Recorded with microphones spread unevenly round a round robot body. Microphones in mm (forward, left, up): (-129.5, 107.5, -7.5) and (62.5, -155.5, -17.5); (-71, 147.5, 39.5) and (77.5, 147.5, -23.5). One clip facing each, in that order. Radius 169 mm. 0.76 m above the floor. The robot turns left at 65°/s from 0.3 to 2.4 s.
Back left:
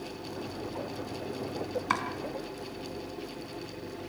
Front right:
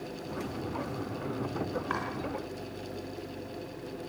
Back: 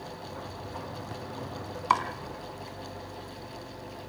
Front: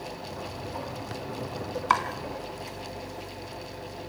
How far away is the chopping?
About 3 m.